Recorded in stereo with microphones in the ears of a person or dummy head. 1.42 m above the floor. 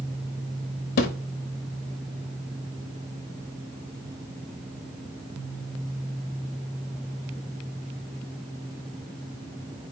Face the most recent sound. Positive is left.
turn(degrees=40)  # may be behind; listen again after turning